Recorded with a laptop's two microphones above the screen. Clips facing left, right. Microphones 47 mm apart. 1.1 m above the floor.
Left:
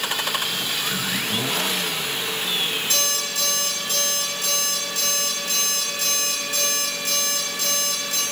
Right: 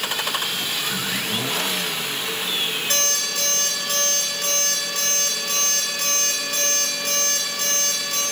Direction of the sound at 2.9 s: 50° right (ahead or behind).